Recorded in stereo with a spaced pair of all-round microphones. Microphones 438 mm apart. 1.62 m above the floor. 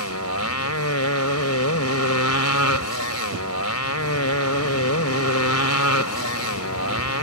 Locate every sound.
0.0 s a motorcycle: 40° left (ahead or behind)